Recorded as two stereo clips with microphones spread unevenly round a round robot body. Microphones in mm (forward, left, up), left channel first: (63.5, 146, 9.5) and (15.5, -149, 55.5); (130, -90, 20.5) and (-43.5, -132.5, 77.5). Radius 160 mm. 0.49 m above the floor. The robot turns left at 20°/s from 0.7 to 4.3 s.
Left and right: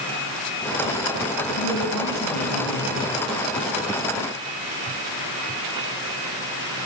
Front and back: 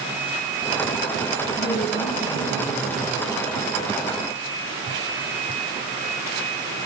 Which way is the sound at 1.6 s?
65° left.